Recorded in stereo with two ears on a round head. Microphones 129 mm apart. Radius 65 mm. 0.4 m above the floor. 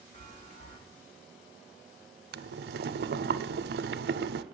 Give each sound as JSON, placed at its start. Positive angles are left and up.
{"t": 0.1, "sound": "a chime", "side_deg": 55, "distance_m": 3.0}
{"t": 2.3, "sound": "boiling", "side_deg": -75, "distance_m": 0.5}